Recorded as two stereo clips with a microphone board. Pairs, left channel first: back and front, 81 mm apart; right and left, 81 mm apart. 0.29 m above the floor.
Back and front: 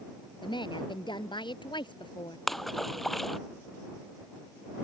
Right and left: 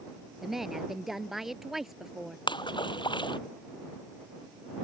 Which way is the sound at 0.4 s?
Straight behind.